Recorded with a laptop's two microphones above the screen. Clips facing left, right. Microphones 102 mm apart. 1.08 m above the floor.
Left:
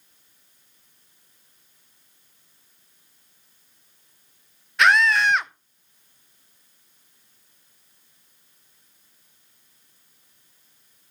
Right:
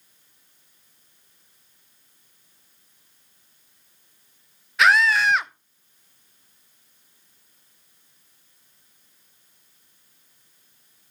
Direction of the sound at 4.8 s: Centre (ahead or behind).